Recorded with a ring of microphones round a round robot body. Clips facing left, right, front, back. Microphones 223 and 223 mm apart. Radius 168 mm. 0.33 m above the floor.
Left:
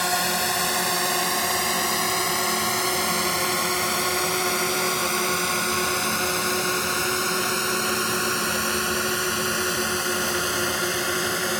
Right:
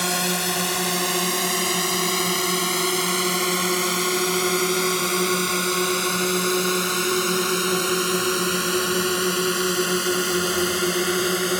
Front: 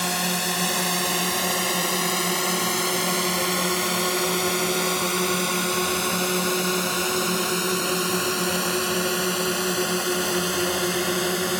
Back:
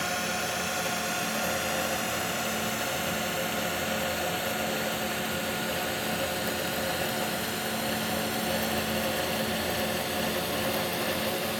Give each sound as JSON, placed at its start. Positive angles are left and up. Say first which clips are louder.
{"t": 0.0, "sound": "a drone", "louder": "right 2 dB, front 5 dB", "azimuth_deg": -45}